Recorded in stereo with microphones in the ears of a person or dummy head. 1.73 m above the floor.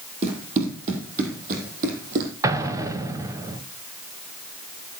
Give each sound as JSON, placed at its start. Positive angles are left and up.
{"t": 0.2, "sound": "running footsteps", "side_deg": -35, "distance_m": 4.0}
{"t": 2.4, "sound": "an explosion", "side_deg": -15, "distance_m": 1.4}